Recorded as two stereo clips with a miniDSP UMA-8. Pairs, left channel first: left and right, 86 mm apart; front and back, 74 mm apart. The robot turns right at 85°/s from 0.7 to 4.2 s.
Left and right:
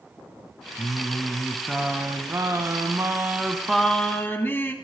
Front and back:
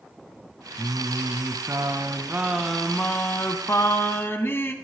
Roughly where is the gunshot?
No gunshot in this recording.